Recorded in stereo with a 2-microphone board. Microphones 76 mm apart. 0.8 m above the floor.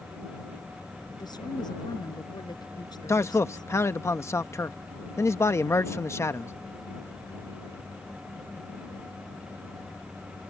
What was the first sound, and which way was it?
A woman speaking, 65° left (ahead or behind).